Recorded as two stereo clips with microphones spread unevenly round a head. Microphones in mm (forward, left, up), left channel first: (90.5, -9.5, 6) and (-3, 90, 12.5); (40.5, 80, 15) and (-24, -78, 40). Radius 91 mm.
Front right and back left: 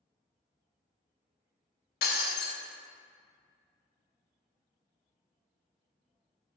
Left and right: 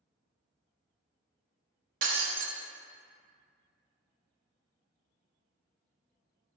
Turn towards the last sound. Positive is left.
turn(degrees=-75)